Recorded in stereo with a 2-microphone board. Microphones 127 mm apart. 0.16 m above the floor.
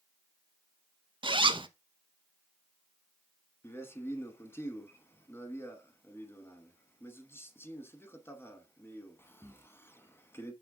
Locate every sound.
1.2 s a zipper: 40° right (ahead or behind), 0.6 m
3.6 s a man speaking: 20° left (ahead or behind), 1.0 m